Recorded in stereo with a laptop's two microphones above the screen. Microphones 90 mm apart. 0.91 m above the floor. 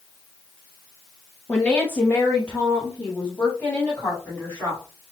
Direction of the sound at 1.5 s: 15° left (ahead or behind).